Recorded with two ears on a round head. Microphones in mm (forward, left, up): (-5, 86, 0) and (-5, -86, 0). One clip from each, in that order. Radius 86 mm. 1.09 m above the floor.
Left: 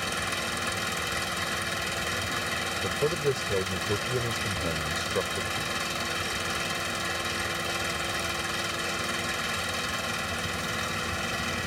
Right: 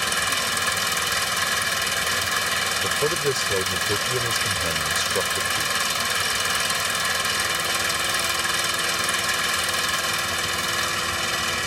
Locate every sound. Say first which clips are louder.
0.0 s an engine running: right 7 dB; 45° right (ahead or behind)
2.8 s a man speaking: right 5 dB; 60° right (ahead or behind)